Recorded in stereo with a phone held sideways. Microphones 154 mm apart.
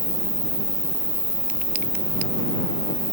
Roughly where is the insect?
Left.